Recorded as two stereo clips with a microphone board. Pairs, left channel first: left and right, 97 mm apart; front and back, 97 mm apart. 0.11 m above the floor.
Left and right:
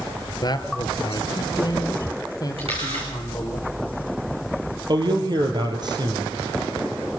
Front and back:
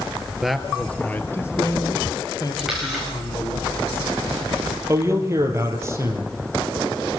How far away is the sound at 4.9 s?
About 2.5 m.